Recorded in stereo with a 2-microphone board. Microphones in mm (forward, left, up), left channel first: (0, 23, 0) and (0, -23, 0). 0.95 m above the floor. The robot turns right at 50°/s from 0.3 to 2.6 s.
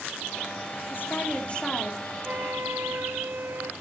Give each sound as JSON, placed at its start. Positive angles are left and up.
{"t": 0.9, "sound": "a woman speaking", "azimuth_deg": 120, "distance_m": 3.0}
{"t": 2.2, "sound": "a flute", "side_deg": -35, "distance_m": 1.3}